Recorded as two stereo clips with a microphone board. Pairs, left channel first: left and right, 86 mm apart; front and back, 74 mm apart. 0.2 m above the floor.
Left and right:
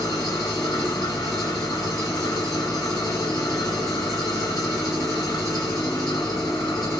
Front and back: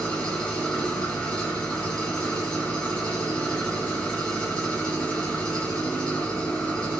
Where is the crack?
No crack in this recording.